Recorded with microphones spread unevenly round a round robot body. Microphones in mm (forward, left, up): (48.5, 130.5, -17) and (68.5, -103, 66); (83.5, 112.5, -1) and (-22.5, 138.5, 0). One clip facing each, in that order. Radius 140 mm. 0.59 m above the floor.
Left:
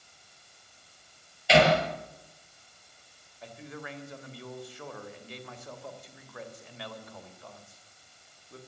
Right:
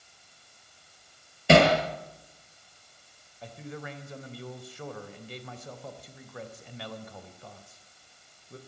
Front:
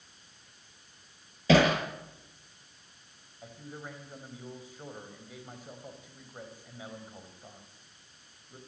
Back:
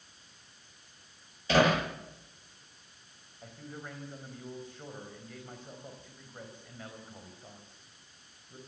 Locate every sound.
1.5 s hammering: 45° right, 8 m
3.4 s a man speaking: 100° right, 3.5 m